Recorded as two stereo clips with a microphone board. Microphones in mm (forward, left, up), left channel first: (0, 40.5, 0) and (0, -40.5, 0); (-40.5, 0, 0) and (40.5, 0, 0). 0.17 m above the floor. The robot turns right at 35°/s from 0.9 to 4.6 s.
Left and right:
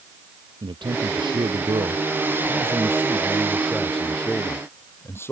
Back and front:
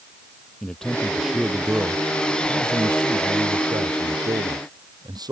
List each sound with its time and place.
0.6 s a man speaking: 100° right; by 5.3 s 30° left